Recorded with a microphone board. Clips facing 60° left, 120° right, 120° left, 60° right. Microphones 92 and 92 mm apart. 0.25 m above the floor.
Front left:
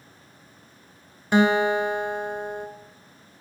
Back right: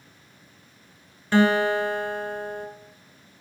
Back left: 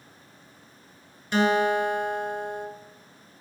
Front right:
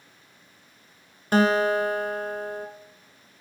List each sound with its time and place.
1.3 s a guitar: 15° right, 0.6 m